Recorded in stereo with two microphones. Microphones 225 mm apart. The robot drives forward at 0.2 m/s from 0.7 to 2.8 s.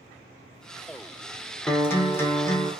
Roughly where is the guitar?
Centre.